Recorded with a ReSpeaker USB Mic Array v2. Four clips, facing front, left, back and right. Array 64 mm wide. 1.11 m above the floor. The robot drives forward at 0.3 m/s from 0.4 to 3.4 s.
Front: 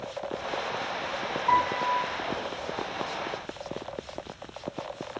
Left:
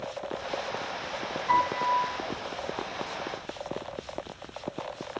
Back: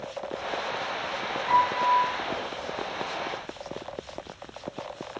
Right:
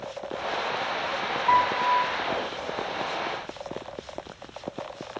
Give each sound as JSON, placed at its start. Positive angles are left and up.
{"t": 1.5, "sound": "a piano", "azimuth_deg": -65, "distance_m": 1.2}